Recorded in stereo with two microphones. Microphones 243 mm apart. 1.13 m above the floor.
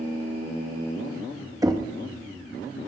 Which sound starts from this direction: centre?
Knocking, at 1.6 s.